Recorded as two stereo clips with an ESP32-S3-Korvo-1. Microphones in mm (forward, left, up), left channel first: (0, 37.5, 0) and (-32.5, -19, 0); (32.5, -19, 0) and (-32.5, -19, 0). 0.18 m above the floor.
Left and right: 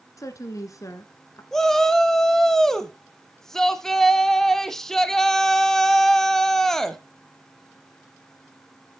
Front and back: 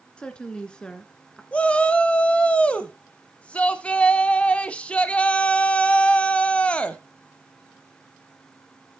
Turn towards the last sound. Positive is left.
turn(degrees=-5)